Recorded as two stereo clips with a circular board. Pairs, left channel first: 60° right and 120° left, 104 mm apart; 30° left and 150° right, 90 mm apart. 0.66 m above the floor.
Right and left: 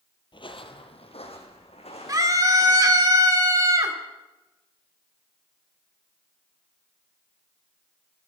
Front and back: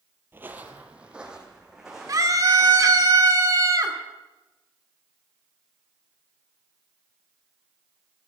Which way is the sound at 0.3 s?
85° right.